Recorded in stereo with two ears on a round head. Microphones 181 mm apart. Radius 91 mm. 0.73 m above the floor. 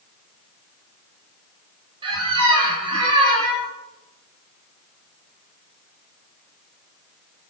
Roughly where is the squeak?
Right.